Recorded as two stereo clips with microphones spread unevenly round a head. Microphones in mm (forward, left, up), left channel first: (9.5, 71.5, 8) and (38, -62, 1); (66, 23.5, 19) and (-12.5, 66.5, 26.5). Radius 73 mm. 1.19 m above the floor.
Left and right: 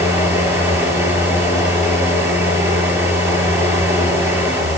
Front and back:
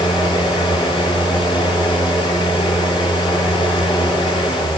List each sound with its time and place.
0.0 s a fan: 5° right, 7.5 m